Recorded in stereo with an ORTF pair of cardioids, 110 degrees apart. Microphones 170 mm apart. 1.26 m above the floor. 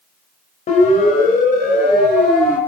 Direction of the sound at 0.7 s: 50° left.